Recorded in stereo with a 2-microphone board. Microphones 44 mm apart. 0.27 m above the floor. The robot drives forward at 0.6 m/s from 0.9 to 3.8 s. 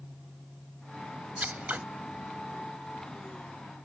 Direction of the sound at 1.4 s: 35° right (ahead or behind).